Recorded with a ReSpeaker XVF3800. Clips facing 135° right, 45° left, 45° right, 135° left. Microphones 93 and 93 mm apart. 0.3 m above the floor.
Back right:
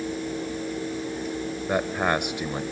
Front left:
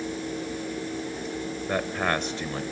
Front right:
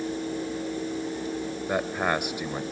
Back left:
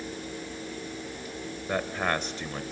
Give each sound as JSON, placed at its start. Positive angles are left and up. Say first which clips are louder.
{"t": 1.7, "sound": "a man speaking", "louder": "back right 3 dB, front right 2 dB", "azimuth_deg": -95, "distance_m": 1.0}